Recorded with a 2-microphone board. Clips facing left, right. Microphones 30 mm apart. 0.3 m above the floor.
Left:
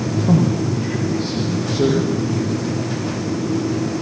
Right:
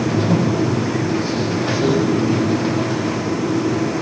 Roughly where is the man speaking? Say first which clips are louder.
Even; left.